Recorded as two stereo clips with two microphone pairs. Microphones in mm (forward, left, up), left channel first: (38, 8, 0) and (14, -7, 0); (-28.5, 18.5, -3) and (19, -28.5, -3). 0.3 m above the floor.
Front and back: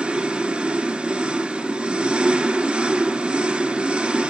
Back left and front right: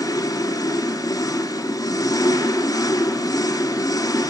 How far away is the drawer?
I don't hear a drawer.